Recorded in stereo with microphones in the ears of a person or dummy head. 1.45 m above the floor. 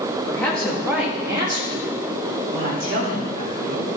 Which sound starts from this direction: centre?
A woman speaking, at 0.3 s.